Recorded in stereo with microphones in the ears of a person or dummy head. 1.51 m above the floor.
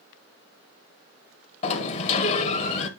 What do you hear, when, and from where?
1.6 s a sliding door: 40° left (ahead or behind), 0.9 m